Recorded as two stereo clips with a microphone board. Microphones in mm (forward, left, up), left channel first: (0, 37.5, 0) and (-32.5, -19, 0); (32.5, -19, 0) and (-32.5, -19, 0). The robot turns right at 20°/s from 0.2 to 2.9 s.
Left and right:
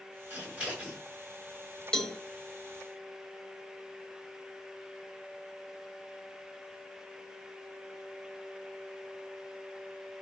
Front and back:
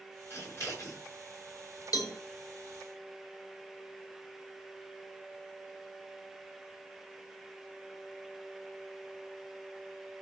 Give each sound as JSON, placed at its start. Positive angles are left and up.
{"t": 0.3, "sound": "scissors", "azimuth_deg": -55, "distance_m": 6.5}
{"t": 1.9, "sound": "a cowbell", "azimuth_deg": -15, "distance_m": 1.8}